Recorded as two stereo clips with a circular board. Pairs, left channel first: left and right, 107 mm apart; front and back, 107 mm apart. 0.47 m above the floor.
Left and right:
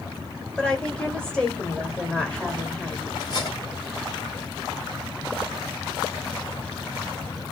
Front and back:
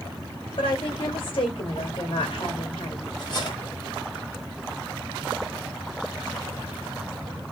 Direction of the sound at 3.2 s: 40° left.